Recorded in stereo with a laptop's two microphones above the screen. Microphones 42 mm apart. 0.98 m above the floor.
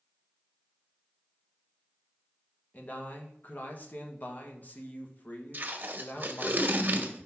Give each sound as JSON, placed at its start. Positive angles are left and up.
{"t": 2.7, "sound": "a man speaking", "side_deg": 40, "distance_m": 1.0}
{"t": 5.5, "sound": "tape being pulled", "side_deg": -45, "distance_m": 1.2}